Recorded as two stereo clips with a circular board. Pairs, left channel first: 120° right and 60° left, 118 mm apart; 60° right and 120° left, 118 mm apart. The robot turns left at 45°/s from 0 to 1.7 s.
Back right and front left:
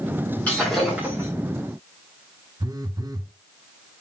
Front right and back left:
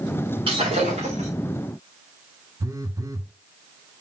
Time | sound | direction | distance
0.5 | breaking glass | 160° left | 6.5 m
2.6 | a phone buzzing | 85° left | 0.9 m